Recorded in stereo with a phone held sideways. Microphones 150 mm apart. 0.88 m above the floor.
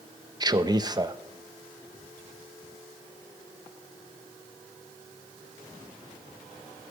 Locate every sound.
0.4 s a man speaking: 25° right (ahead or behind), 0.5 m